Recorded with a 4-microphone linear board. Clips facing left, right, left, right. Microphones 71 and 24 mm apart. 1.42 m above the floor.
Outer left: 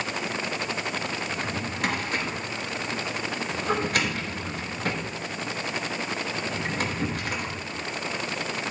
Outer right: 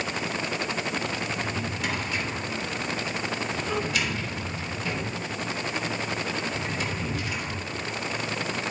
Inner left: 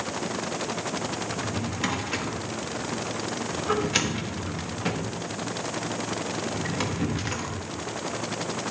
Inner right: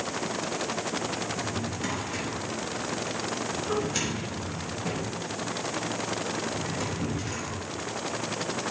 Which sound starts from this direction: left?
A drawer, at 1.3 s.